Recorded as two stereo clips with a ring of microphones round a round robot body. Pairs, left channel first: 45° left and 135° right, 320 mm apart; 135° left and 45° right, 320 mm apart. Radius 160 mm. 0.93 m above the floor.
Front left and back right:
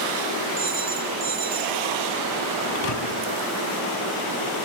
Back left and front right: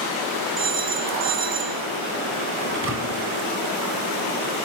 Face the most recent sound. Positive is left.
turn(degrees=10)